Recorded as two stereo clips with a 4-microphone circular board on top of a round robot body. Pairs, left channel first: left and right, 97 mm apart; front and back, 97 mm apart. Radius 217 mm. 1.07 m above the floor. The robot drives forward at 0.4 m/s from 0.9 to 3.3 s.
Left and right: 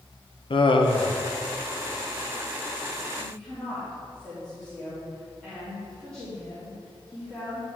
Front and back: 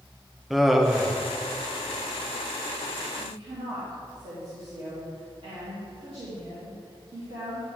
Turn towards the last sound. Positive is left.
turn(degrees=170)